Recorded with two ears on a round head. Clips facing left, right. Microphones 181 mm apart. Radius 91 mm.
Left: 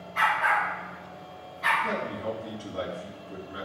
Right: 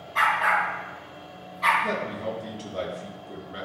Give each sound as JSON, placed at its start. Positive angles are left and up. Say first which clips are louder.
{"t": 0.1, "sound": "a dog barking", "louder": "right 1 dB", "side_deg": -65, "distance_m": 3.5}
{"t": 1.8, "sound": "a man speaking", "louder": "right 2 dB", "side_deg": -45, "distance_m": 2.5}